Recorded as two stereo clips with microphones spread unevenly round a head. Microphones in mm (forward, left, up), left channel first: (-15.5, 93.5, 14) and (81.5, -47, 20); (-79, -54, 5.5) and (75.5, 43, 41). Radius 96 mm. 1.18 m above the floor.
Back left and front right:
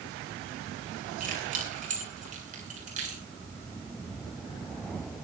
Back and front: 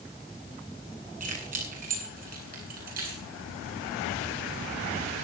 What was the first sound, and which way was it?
Keys jangling, 15° right.